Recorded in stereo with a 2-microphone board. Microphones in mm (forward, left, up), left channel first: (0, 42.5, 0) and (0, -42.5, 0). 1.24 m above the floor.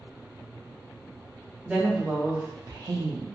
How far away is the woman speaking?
About 1.4 m.